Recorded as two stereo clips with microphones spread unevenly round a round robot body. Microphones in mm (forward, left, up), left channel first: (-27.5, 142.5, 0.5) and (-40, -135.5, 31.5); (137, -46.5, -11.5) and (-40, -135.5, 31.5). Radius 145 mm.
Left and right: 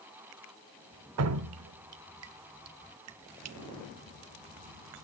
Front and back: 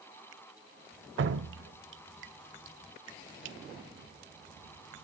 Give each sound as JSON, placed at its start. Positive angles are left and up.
{"t": 1.2, "sound": "dripping", "azimuth_deg": -130, "distance_m": 0.9}